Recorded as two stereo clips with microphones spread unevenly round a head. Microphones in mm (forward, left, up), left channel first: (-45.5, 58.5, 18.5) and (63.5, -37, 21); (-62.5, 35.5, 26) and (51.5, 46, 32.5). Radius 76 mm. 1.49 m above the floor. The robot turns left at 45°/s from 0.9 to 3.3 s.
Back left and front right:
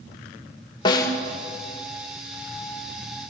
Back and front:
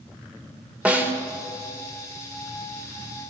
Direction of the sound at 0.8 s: 80° left.